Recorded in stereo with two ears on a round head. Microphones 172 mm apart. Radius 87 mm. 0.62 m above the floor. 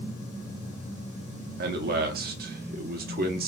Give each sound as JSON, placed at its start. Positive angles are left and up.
{"t": 1.6, "sound": "a man speaking", "side_deg": -50, "distance_m": 0.9}